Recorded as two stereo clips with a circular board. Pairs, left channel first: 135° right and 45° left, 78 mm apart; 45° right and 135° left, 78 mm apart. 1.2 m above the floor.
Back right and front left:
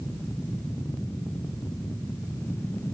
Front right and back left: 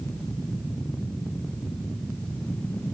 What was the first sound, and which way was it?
Only background noise.